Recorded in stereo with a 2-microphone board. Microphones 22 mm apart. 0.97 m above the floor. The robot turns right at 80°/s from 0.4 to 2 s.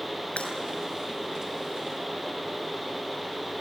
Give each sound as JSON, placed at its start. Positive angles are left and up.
{"t": 0.4, "sound": "breaking glass", "side_deg": 75, "distance_m": 6.5}